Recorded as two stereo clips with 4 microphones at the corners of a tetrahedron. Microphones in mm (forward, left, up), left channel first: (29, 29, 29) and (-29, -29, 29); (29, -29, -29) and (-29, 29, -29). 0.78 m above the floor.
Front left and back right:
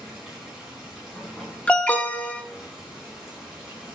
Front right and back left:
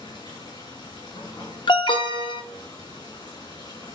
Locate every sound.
0.0 s running water: 50° right, 6 m
1.7 s an alarm: 30° right, 0.9 m